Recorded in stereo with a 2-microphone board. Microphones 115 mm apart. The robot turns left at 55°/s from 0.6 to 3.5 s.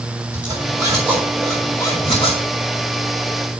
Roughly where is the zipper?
Behind right.